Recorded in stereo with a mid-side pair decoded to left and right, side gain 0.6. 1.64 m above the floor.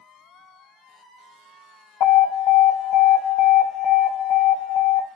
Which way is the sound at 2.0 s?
60° left.